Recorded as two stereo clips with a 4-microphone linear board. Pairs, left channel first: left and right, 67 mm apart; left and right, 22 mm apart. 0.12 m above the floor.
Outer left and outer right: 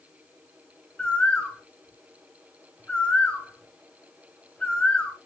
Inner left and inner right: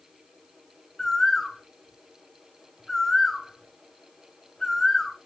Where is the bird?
15° left (ahead or behind), 1.4 m.